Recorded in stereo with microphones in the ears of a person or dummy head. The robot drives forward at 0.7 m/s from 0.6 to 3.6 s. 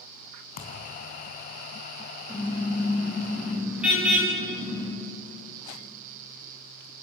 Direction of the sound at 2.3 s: 10° right (ahead or behind).